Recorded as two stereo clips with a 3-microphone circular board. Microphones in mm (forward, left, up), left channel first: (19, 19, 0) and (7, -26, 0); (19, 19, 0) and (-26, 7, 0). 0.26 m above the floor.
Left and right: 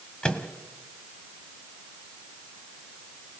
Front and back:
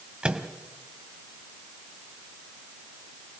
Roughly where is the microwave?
Behind left.